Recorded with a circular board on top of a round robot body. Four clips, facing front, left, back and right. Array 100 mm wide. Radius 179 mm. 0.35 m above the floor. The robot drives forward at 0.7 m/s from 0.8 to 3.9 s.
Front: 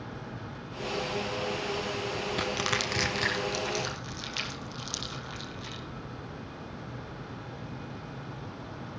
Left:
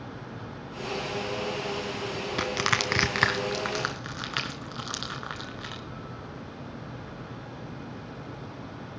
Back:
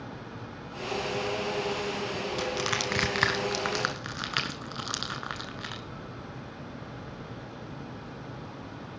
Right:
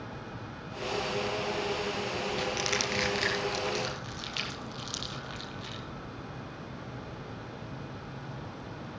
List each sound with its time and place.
2.4 s crushing: 70° left, 0.7 m; by 5.8 s 145° left, 1.0 m